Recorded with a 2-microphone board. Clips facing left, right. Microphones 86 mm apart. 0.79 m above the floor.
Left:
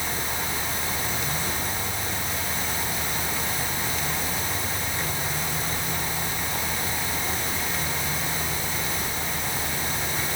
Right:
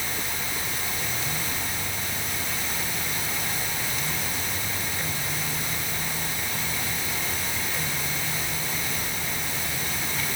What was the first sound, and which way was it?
Only background noise.